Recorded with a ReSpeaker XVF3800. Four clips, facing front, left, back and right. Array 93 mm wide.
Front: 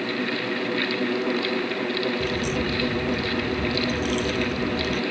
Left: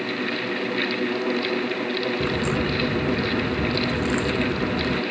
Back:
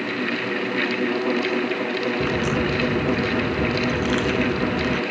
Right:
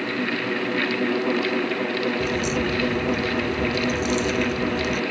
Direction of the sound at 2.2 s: 145° left.